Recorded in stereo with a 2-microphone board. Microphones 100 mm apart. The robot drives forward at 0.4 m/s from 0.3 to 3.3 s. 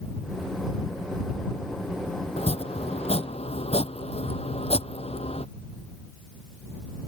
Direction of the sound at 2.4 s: 85° left.